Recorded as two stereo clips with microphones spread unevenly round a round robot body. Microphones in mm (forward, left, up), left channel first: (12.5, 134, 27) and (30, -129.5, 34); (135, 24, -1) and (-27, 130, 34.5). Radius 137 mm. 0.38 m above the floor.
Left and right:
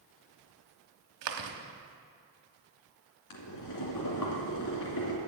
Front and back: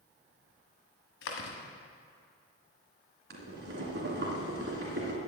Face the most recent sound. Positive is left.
turn(degrees=115)